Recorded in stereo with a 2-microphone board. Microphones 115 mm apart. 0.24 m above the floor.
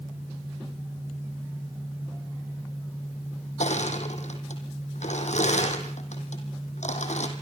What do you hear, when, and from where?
3.6 s crushing: 85° left, 3.5 m